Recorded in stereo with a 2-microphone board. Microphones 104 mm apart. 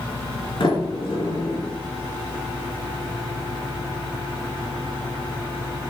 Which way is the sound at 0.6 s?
55° left (ahead or behind).